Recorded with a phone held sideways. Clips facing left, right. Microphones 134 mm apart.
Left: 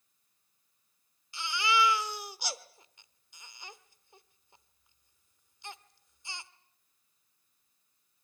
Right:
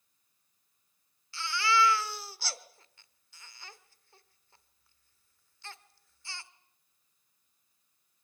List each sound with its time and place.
1.3 s a baby crying: 15° left (ahead or behind), 1.1 m